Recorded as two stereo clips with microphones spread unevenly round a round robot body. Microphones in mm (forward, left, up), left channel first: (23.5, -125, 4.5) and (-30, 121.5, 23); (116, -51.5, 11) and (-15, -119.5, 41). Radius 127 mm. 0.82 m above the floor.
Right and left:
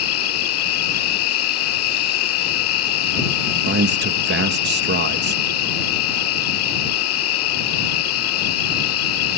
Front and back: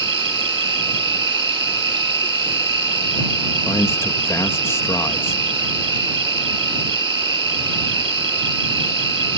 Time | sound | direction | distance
0.0 | an insect | 110° right | ?
3.7 | a man speaking | 80° left | ?